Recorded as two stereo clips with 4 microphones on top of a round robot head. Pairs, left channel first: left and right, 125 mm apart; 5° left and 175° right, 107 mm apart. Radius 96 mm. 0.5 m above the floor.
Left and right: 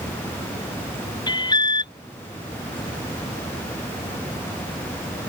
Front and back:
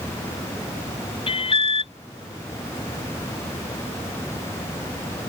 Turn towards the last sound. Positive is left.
turn(degrees=35)